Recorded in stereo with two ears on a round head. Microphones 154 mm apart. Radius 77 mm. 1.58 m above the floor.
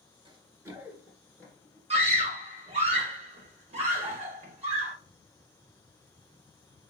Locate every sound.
0.2 s running footsteps: 25° right (ahead or behind), 1.9 m; by 1.8 s 20° left (ahead or behind), 1.6 m
1.9 s a scream: 35° right (ahead or behind), 1.8 m